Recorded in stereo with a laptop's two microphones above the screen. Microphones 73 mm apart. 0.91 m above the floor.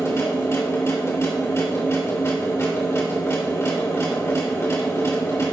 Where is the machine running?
40° left (ahead or behind), 3.5 m.